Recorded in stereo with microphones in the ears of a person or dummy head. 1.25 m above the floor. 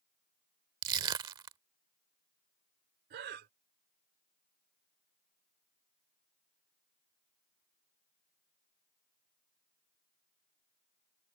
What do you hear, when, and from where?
0.8 s crushing: 25° right (ahead or behind)
3.1 s breathing: 50° right (ahead or behind)